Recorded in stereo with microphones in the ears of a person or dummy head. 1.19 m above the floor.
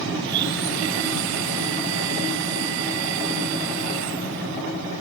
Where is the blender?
65° right (ahead or behind).